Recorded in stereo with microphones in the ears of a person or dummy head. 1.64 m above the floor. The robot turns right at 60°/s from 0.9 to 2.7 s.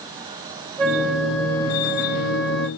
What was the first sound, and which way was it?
A flute, 5° left.